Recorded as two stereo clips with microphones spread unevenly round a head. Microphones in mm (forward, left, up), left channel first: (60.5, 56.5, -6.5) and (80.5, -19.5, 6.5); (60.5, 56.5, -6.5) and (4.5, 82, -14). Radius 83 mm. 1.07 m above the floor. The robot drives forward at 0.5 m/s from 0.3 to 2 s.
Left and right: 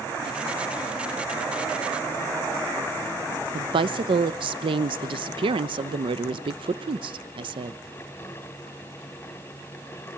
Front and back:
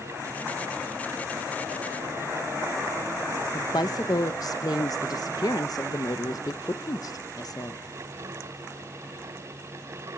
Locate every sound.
3.5 s a woman speaking: 75° right, 0.8 m